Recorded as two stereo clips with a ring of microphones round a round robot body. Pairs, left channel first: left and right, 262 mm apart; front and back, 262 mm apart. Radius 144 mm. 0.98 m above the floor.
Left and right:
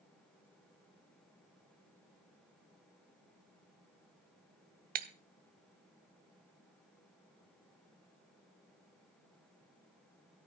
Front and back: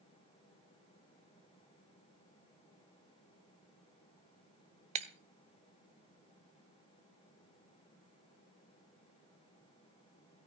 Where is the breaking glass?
125° right, 0.7 m.